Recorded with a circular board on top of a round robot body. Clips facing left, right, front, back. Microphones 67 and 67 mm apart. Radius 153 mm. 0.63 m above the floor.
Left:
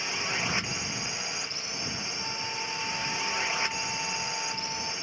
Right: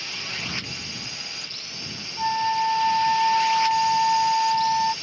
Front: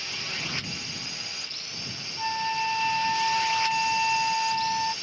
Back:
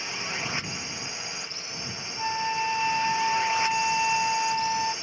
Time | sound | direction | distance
0.0 | a drone | 135° left | ?
2.2 | a flute | 90° right | ?